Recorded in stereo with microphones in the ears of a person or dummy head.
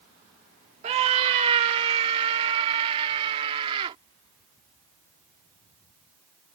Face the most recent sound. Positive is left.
turn(degrees=-30)  # may be behind; listen again after turning